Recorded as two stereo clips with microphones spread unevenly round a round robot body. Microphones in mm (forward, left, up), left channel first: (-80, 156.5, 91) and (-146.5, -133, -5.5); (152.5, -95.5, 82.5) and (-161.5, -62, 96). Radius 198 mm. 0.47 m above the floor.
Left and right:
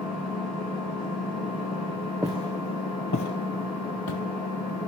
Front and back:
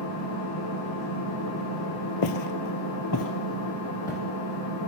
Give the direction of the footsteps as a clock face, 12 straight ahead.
12 o'clock.